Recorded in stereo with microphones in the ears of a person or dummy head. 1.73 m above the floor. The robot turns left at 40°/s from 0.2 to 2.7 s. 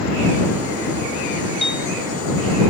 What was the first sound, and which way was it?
A piano, centre (ahead or behind).